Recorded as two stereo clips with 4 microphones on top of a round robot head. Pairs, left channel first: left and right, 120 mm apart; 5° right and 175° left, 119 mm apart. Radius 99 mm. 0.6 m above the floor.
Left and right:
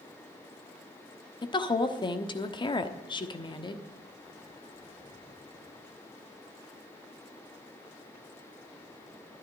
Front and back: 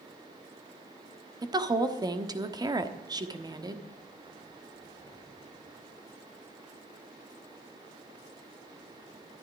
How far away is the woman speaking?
About 1.2 m.